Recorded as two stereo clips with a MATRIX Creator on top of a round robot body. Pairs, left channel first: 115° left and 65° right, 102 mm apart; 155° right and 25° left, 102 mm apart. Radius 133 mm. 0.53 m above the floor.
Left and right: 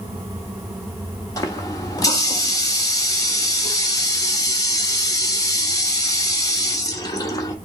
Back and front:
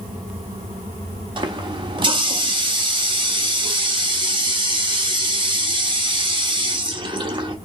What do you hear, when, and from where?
1.4 s a running tap: 60° left, 1.3 m